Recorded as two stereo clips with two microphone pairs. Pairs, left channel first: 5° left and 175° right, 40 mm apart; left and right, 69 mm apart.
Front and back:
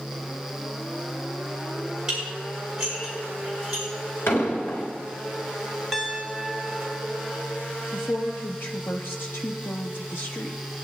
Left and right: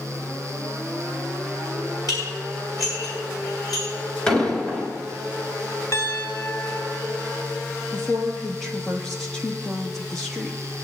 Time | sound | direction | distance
2.1 | dishes clattering | 110° left | 5.5 m
4.3 | an explosion | 15° left | 3 m
5.9 | a piano | 105° left | 1.2 m
7.9 | a woman speaking | 5° left | 0.9 m